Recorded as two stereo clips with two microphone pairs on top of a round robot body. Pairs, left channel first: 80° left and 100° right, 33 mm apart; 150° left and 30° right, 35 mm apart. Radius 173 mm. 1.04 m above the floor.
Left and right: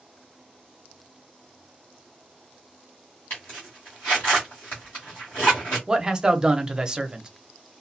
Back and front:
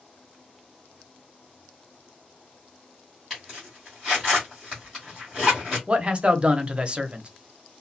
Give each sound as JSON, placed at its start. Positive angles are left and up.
{"t": 3.3, "sound": "a zipper", "azimuth_deg": 60, "distance_m": 1.1}
{"t": 5.9, "sound": "a man speaking", "azimuth_deg": -60, "distance_m": 0.8}